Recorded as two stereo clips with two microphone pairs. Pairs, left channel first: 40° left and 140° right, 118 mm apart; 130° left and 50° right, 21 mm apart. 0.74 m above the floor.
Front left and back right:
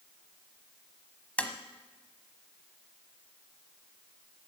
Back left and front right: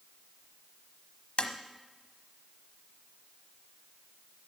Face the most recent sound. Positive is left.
turn(degrees=115)